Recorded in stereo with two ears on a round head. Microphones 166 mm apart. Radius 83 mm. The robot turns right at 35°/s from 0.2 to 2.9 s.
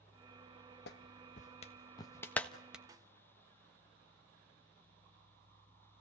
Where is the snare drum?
20° right (ahead or behind), 1.2 m.